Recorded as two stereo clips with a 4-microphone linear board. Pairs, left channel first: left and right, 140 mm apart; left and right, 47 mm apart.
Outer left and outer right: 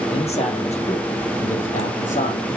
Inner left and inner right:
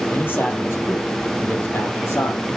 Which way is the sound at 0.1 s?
45° left (ahead or behind).